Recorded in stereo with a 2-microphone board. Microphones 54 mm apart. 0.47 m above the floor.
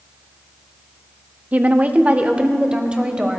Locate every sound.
1.5 s a woman speaking: 30° right (ahead or behind), 0.7 m; by 3.4 s 15° right (ahead or behind), 1.8 m